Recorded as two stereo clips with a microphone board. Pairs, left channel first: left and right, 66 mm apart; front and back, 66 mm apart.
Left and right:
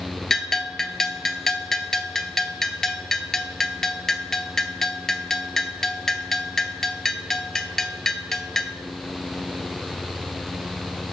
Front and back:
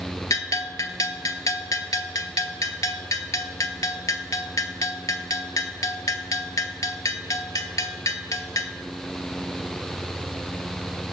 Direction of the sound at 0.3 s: 5° left.